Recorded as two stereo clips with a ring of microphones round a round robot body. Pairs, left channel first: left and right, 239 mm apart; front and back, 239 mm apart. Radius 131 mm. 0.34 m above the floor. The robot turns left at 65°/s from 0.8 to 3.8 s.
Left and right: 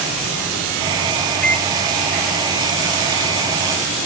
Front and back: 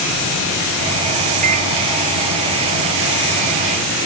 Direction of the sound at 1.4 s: 170° left.